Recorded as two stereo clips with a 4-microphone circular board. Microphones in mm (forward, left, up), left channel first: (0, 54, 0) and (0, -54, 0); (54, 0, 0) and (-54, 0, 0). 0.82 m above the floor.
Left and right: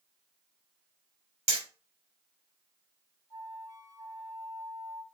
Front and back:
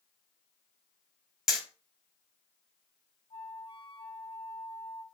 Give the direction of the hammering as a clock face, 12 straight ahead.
3 o'clock.